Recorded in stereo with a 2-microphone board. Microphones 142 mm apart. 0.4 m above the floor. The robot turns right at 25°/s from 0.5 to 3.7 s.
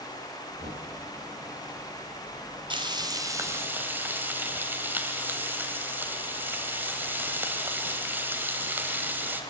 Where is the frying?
35° right (ahead or behind), 2 m; by 9.4 s 15° right (ahead or behind), 2 m.